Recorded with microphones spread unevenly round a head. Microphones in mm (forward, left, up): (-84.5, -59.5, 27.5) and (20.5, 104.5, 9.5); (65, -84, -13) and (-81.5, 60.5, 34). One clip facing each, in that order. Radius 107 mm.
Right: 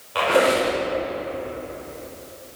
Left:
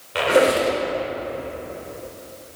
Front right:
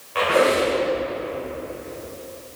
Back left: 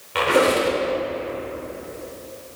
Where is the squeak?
125° left, 1.6 m.